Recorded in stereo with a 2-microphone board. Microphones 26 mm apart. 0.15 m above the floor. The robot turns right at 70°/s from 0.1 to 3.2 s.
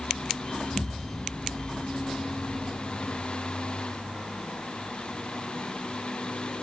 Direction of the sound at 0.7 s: 170° right.